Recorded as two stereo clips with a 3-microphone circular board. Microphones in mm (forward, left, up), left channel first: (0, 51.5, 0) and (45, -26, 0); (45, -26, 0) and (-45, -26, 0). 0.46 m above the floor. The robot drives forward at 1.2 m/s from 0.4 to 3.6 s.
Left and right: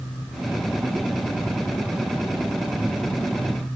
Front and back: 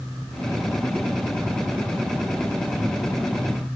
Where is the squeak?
I don't hear a squeak.